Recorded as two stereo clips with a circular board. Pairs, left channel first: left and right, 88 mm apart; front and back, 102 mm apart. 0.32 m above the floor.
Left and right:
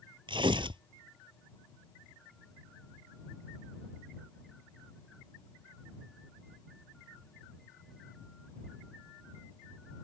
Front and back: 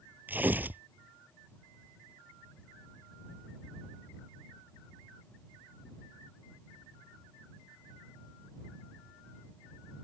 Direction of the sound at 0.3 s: 110° right.